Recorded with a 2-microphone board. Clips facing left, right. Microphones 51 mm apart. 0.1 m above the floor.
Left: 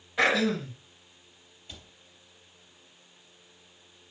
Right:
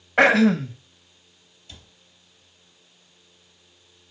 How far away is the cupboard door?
About 3 m.